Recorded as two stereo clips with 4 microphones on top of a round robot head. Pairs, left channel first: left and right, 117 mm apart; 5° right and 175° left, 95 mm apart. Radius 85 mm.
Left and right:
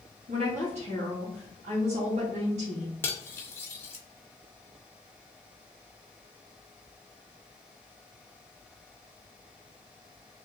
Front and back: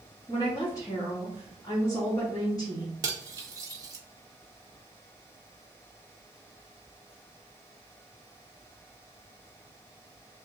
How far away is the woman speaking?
About 1.4 m.